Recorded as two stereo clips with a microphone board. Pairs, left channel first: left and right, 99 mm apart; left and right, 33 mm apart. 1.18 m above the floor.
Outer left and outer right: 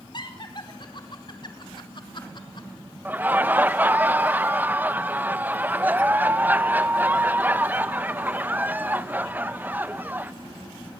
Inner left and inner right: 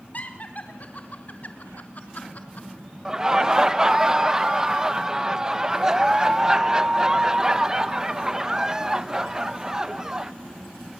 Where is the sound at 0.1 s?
50° left (ahead or behind), 4.5 m.